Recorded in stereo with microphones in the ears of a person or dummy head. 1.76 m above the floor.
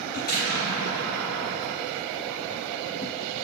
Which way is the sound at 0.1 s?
50° left (ahead or behind).